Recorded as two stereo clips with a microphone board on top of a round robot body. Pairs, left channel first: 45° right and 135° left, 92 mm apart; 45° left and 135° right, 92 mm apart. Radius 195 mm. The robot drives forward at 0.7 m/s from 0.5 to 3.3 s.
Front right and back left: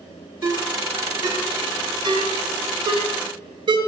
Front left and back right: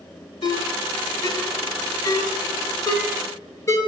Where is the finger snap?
No finger snap in this recording.